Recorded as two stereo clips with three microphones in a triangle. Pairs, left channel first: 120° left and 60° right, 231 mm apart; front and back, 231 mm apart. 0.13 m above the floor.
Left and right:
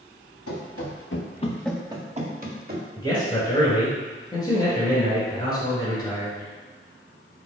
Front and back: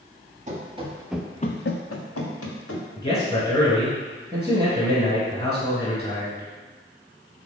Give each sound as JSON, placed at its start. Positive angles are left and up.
{"t": 0.5, "sound": "running footsteps", "azimuth_deg": 120, "distance_m": 1.4}
{"t": 3.0, "sound": "a man speaking", "azimuth_deg": 60, "distance_m": 1.7}